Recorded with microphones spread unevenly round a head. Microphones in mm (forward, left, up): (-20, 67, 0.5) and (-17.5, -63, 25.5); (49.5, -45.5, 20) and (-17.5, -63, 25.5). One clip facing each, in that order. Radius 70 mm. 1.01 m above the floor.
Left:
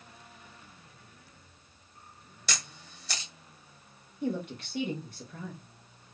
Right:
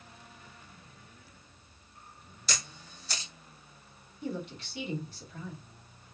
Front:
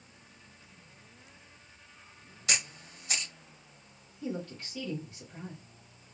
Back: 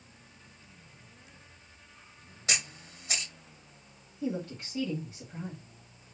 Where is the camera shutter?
120° left, 1.5 m.